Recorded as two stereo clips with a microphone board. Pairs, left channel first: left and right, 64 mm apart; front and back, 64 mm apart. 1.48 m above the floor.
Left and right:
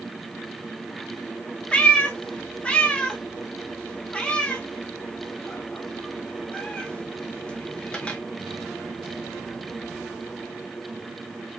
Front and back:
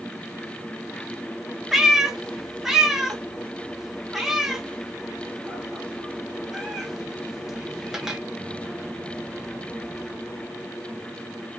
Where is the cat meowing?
115° left, 0.6 m.